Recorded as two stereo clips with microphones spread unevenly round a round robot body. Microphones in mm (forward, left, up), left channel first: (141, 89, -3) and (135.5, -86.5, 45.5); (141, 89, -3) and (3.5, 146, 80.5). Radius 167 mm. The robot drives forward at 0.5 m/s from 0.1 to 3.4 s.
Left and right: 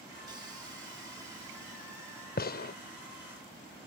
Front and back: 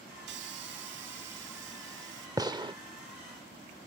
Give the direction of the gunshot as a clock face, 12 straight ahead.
9 o'clock.